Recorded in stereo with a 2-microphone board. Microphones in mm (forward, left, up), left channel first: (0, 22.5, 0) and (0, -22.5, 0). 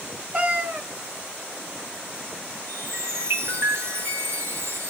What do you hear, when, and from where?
0.3 s a cat meowing: 25° right (ahead or behind), 0.7 m
2.7 s a chime: 60° right (ahead or behind), 2.5 m